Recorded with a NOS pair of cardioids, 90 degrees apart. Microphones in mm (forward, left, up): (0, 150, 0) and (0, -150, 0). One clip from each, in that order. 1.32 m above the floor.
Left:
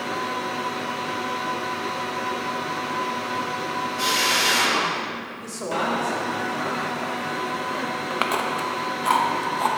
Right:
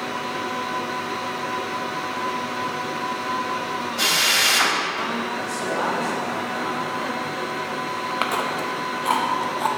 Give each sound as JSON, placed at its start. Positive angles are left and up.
{"t": 4.0, "sound": "a drill", "azimuth_deg": -55, "distance_m": 3.0}
{"t": 5.4, "sound": "a man speaking", "azimuth_deg": 20, "distance_m": 4.0}
{"t": 8.1, "sound": "chewing", "azimuth_deg": 5, "distance_m": 1.0}